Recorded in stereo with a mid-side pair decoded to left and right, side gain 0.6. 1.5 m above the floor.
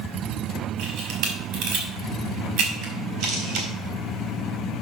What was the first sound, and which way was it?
A camera shutter, 70° right.